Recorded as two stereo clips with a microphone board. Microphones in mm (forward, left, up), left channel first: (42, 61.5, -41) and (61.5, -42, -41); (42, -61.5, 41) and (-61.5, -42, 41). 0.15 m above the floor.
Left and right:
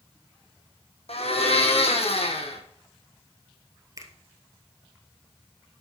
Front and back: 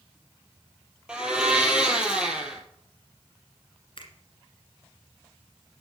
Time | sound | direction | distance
1.1 | a blender | 90° left | 1.9 m
4.0 | a finger snap | 30° right | 1.7 m